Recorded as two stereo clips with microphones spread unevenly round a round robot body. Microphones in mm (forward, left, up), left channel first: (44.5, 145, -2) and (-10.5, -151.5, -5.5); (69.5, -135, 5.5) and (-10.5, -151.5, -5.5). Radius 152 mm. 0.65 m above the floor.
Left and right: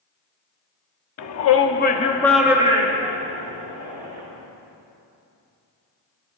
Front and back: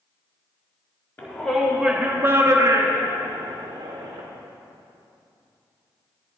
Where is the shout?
85° left, 1.3 m; by 4.2 s 140° right, 2 m.